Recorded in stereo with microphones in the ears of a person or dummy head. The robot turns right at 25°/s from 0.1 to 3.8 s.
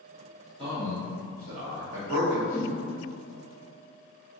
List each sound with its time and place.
0.6 s a man speaking: 35° right (ahead or behind), 0.8 m; by 2.4 s 80° right, 0.8 m
2.5 s a whoosh: 30° right (ahead or behind), 1.5 m; by 2.7 s 35° right (ahead or behind), 1.5 m